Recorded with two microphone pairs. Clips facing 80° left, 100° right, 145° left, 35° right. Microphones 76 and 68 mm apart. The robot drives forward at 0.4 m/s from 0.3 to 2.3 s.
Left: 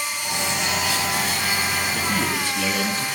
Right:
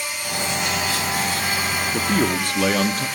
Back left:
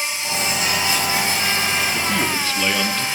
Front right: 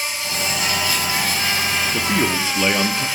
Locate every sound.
0.0 s an insect: 80° left, 9 m; by 3.2 s 85° left, 9 m
1.9 s a man speaking: 95° right, 1.6 m; by 3.1 s 100° right, 1.6 m